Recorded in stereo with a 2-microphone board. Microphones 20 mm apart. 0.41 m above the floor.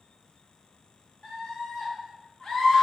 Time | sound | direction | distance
1.2 | a scream | 40° left (ahead or behind) | 1.5 m